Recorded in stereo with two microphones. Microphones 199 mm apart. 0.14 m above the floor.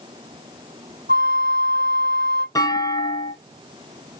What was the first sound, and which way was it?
A flute, 65° right (ahead or behind).